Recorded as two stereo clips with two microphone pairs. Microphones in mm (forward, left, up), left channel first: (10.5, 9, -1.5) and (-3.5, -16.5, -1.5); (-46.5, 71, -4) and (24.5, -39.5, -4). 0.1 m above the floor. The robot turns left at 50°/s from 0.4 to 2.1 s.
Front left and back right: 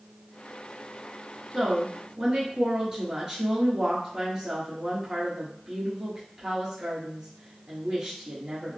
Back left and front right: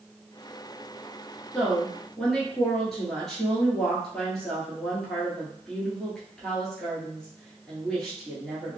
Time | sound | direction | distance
1.5 | a woman speaking | 125° right | 1.3 m